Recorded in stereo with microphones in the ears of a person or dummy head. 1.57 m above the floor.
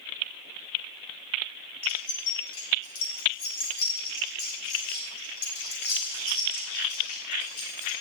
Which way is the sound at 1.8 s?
80° left.